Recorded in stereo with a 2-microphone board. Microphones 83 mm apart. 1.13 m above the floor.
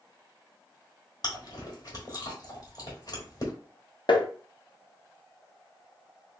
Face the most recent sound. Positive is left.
turn(degrees=65)  # may be behind; listen again after turning